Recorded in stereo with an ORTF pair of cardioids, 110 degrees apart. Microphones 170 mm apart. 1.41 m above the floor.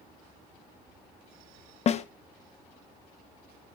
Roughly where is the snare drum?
Ahead left.